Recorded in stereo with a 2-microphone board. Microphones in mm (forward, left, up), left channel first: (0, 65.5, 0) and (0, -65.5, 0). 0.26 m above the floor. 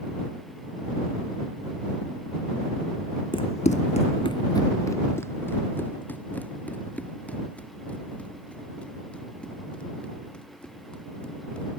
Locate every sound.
3.3 s running footsteps: 40° left (ahead or behind); by 11.7 s 5° left (ahead or behind)